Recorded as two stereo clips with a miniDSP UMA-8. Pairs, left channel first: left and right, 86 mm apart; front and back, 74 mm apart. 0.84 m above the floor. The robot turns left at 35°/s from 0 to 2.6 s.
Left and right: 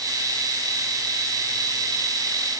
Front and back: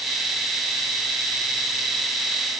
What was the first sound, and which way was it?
Only background noise.